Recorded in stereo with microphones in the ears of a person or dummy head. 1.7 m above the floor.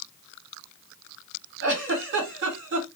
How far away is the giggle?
About 2 m.